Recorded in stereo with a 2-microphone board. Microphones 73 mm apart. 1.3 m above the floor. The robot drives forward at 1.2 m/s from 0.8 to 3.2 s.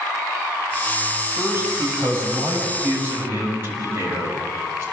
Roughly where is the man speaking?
Right.